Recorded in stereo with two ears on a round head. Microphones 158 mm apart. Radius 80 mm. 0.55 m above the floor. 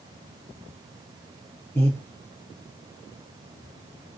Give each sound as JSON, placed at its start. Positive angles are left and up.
{"t": 1.8, "sound": "breathing", "side_deg": 10, "distance_m": 7.5}